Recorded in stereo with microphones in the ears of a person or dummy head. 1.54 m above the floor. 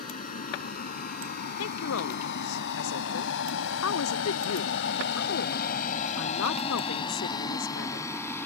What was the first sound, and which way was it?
A vehicle, 45° left (ahead or behind).